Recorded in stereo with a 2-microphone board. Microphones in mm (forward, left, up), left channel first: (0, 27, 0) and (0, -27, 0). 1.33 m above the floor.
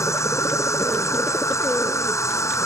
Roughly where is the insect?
Left.